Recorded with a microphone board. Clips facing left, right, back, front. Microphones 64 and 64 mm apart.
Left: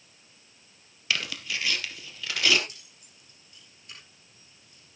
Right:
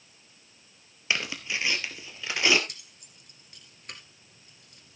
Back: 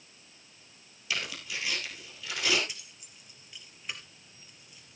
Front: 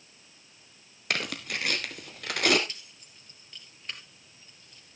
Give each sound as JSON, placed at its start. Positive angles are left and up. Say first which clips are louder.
{"t": 1.1, "sound": "tearing paper", "louder": "right 1 dB, front 4 dB", "azimuth_deg": -25, "distance_m": 1.7}
{"t": 2.7, "sound": "keys jangling", "louder": "right 2 dB, even", "azimuth_deg": -95, "distance_m": 2.5}